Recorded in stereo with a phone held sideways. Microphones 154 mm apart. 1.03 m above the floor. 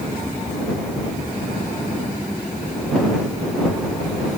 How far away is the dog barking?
I don't hear a dog barking.